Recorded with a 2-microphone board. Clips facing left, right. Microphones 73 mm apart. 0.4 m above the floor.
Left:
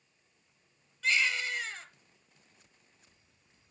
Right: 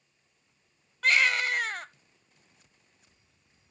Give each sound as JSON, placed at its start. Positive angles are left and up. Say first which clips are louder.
{"t": 1.0, "sound": "a baby crying", "louder": "right 6 dB", "side_deg": -60, "distance_m": 0.7}